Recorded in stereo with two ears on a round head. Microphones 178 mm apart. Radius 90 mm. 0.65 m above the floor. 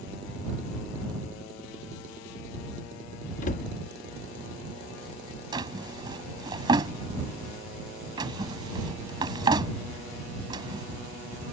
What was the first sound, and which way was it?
A cupboard door, 40° left (ahead or behind).